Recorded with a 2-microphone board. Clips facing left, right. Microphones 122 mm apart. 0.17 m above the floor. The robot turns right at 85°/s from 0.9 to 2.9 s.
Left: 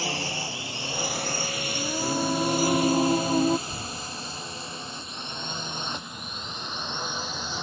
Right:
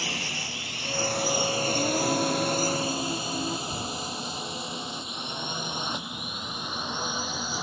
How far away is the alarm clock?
No alarm clock in this recording.